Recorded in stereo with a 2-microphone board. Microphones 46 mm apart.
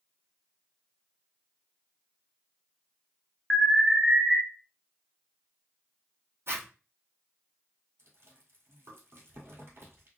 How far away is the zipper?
About 0.9 m.